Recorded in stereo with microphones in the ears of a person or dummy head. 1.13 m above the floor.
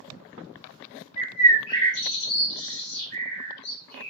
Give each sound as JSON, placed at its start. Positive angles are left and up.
{"t": 1.2, "sound": "a bird", "side_deg": 60, "distance_m": 1.6}